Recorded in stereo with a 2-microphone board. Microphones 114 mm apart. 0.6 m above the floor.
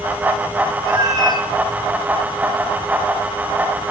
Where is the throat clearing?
I don't hear throat clearing.